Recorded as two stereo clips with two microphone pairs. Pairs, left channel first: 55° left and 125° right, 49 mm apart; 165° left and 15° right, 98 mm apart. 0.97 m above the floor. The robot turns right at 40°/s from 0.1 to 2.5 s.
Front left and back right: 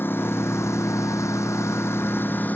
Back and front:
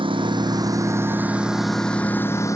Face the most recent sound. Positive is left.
turn(degrees=105)